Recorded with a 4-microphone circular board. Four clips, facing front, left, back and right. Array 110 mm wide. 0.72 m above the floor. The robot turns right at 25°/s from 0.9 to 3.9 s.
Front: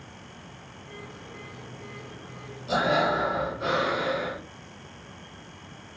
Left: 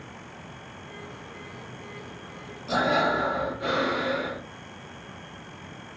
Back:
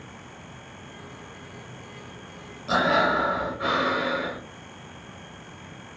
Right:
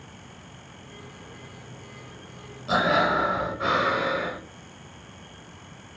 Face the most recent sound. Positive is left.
turn(degrees=-105)